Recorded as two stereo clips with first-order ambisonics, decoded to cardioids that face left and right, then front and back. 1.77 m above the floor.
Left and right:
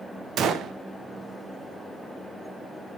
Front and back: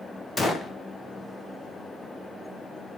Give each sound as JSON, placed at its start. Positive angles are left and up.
{"t": 0.4, "sound": "a gunshot", "azimuth_deg": -70, "distance_m": 1.1}